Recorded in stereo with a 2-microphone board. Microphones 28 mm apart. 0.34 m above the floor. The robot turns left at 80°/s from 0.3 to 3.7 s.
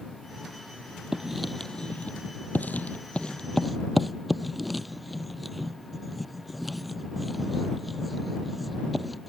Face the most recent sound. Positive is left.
turn(degrees=0)  # may be behind; listen again after turning